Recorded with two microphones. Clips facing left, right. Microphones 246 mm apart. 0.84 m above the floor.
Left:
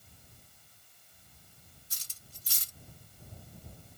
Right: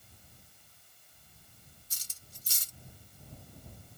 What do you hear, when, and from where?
1.9 s cutlery clinking: 70° left (ahead or behind)